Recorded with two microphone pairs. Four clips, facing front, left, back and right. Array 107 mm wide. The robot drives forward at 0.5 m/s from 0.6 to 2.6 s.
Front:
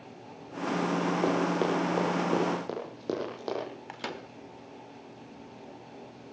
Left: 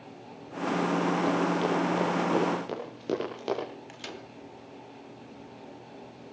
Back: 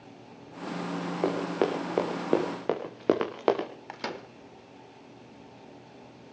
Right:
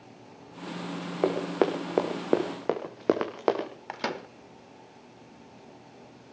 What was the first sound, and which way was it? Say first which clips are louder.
Running footsteps: even, back 3 dB; 100° right.